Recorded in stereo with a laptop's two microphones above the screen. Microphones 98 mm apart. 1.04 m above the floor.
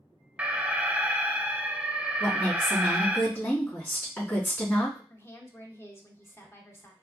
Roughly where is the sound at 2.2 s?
Left.